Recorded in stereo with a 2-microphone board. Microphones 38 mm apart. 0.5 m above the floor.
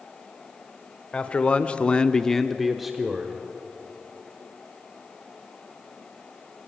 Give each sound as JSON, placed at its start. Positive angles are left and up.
{"t": 1.1, "sound": "a man speaking", "side_deg": 30, "distance_m": 1.5}